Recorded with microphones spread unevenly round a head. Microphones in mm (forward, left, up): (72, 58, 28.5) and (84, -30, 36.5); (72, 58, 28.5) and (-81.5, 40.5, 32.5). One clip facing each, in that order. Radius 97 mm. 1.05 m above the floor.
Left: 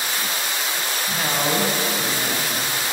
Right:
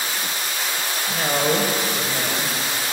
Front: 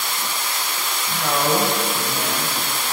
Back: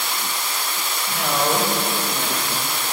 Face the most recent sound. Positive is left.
turn(degrees=-75)